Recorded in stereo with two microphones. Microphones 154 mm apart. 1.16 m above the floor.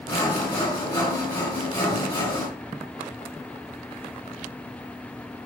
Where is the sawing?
30° left (ahead or behind), 2.0 m.